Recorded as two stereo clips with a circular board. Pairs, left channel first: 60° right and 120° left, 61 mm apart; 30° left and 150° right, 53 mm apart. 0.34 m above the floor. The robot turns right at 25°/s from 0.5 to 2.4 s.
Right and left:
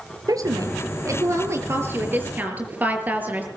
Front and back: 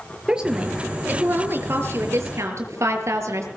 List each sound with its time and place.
0.3 s a woman speaking: 135° left, 6 m; by 3.5 s straight behind, 6 m